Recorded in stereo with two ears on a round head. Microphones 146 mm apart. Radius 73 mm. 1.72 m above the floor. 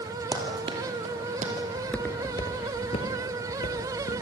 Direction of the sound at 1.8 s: 5° left (ahead or behind).